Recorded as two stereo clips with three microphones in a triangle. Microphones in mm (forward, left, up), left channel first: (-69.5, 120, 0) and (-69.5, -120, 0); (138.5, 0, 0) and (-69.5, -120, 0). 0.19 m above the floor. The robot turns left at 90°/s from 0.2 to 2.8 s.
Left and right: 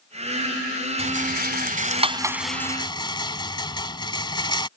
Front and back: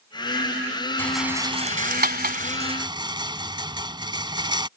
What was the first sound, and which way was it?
A rattle, 45° right.